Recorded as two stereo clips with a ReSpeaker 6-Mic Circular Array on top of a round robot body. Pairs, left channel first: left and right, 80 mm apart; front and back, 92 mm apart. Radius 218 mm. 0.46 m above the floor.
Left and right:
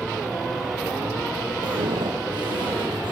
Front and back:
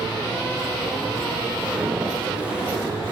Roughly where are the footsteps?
Right.